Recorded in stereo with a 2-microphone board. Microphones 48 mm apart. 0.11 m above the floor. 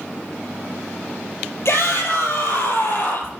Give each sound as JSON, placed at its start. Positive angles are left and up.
{"t": 1.6, "sound": "a shout", "side_deg": 65, "distance_m": 2.5}